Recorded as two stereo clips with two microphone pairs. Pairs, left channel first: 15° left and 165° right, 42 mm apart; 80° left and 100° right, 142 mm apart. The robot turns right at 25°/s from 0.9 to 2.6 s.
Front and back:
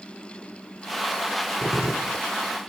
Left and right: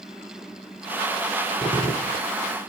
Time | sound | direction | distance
1.6 | a gunshot | 20° left | 1.9 m